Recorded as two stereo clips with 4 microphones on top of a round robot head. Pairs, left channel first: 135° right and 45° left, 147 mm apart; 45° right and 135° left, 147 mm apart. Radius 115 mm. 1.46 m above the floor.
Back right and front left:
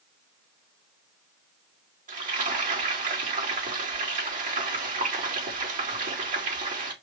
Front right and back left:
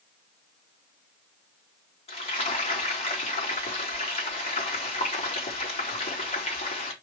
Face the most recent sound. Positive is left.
turn(degrees=5)